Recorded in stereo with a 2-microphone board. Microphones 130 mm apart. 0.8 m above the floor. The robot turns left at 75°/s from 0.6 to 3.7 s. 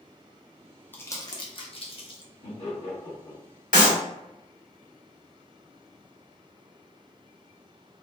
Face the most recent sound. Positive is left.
turn(degrees=80)